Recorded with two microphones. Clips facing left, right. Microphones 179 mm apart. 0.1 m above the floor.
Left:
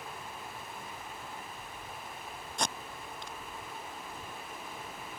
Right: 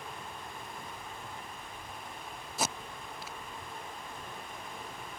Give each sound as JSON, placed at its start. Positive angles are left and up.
{"t": 2.6, "sound": "tape being pulled", "side_deg": -5}